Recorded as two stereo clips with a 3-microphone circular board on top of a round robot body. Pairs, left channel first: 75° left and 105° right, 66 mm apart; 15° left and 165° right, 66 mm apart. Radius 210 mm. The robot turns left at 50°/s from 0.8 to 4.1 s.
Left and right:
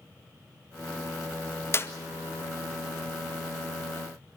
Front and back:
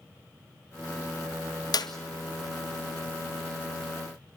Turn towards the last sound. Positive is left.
turn(degrees=-90)